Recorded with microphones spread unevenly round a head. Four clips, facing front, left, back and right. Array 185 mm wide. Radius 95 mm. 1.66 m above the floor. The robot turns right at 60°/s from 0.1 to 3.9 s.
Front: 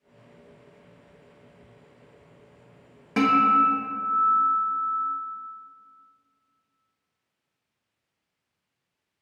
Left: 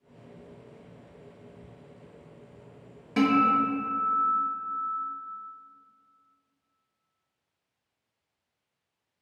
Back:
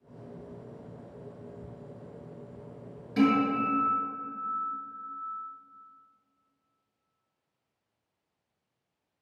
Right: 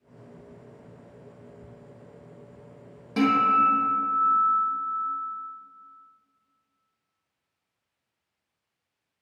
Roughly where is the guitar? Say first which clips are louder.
Right 1 dB, front 5 dB; ahead.